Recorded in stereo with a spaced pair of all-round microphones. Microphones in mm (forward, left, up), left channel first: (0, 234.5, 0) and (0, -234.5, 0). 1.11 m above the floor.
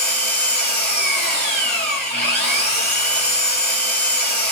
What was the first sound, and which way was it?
An engine running, 20° left (ahead or behind).